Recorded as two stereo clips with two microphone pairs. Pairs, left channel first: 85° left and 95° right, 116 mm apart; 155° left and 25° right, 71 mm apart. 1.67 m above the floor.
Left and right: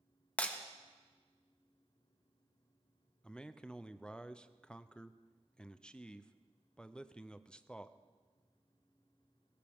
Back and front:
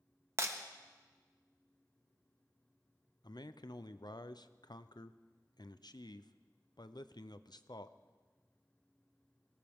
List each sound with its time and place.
0.4 s breaking glass: 10° left, 1.2 m
3.2 s a man speaking: 165° left, 0.6 m